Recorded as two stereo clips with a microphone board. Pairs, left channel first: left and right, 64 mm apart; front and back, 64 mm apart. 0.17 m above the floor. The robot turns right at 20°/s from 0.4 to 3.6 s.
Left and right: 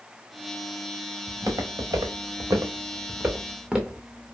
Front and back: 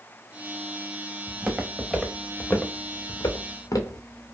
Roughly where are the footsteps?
Behind right.